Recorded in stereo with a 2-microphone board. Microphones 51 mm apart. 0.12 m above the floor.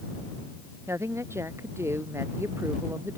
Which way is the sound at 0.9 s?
60° right (ahead or behind).